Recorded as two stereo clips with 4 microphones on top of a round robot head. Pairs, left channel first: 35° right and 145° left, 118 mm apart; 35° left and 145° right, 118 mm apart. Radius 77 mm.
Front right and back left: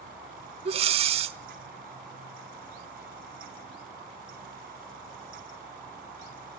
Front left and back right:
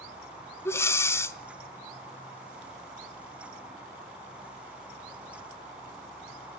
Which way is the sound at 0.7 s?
105° left.